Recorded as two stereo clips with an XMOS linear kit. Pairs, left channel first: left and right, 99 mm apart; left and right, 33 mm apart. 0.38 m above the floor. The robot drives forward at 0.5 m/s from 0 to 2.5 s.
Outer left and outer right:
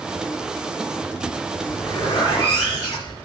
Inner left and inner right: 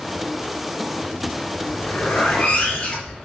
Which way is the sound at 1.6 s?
45° left (ahead or behind).